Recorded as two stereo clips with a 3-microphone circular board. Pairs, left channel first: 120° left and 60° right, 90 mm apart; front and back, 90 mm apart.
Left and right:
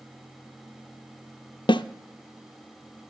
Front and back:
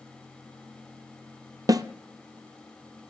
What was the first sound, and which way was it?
A snare drum, 140° left.